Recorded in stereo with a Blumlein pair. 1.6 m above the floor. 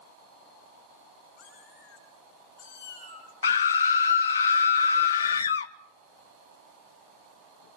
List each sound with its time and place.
1.4 s a cat meowing: 50° left, 6 m; by 4.4 s 70° left, 4.5 m
3.4 s a scream: 65° left, 0.6 m